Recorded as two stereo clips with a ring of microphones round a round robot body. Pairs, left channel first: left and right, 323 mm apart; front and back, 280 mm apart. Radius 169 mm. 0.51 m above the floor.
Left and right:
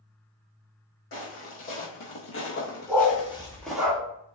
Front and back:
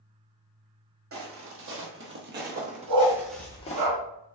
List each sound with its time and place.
1.1 s footsteps: 145° left, 1.3 m; by 3.9 s 10° right, 0.5 m
2.9 s a dog barking: straight behind, 0.9 m